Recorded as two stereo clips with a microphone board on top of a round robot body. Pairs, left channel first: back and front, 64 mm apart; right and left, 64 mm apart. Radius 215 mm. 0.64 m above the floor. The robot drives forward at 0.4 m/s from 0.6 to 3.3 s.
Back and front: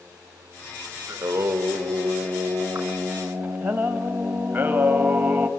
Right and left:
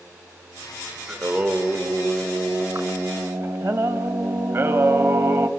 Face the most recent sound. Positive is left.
turn(degrees=70)